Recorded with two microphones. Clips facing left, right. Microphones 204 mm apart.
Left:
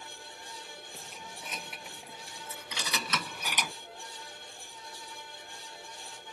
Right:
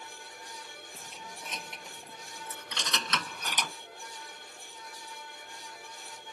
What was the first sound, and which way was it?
Keys jangling, 5° left (ahead or behind).